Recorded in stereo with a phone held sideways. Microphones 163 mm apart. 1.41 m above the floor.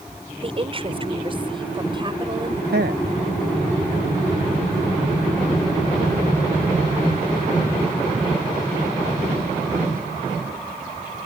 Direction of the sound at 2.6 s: 80° right.